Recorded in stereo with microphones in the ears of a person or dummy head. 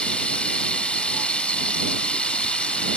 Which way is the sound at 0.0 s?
Centre (ahead or behind).